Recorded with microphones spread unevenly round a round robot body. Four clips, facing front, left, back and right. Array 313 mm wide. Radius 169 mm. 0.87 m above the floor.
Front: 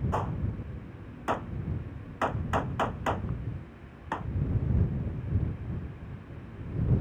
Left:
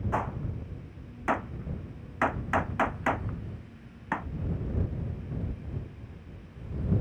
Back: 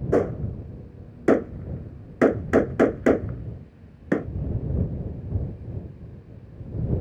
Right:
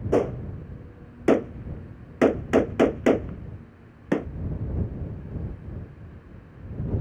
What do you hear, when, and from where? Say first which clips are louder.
0.1 s a gunshot: right 11 dB, back 10 dB; 150° right